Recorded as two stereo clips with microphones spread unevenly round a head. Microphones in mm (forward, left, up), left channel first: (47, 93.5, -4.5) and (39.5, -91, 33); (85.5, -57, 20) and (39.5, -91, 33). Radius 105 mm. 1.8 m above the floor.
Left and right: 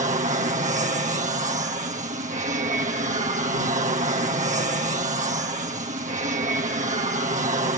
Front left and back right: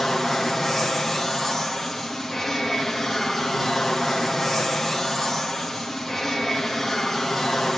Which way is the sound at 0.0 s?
45° right.